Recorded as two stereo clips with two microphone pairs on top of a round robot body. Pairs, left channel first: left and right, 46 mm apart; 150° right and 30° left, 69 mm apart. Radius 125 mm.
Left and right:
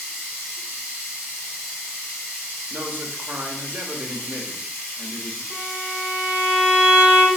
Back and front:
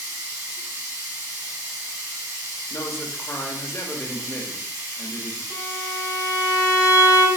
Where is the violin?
60° left, 1.8 m.